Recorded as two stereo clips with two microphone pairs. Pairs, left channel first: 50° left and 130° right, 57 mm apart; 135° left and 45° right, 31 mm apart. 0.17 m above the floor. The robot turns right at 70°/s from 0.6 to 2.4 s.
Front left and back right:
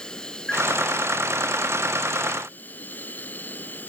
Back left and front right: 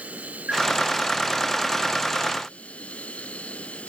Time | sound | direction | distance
0.0 | an insect | 25° right | ?